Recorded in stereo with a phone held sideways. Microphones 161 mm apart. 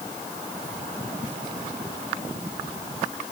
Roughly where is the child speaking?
I don't hear a child speaking.